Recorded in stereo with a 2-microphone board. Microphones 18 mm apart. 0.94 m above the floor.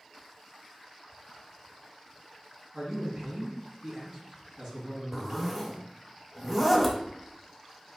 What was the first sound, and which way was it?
A man speaking, 50° right (ahead or behind).